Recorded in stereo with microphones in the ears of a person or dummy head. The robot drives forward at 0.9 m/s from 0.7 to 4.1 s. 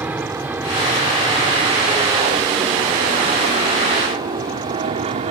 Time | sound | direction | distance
0.0 | an aircraft | 10° right (ahead or behind) | ?